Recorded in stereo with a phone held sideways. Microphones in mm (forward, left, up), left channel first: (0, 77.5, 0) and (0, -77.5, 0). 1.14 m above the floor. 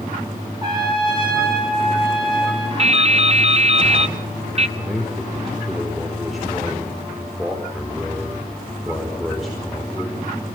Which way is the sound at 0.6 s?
30° right (ahead or behind).